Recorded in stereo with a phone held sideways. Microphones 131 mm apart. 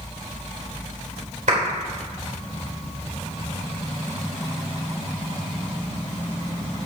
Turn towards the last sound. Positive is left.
turn(degrees=-70)  # may be behind; listen again after turning